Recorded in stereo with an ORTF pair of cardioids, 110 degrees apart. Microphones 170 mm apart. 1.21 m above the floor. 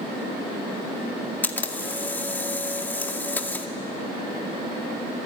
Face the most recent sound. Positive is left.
turn(degrees=10)